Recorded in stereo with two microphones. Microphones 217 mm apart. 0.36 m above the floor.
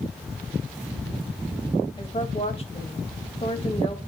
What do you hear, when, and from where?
2.0 s a woman speaking: 30° left (ahead or behind), 1.6 m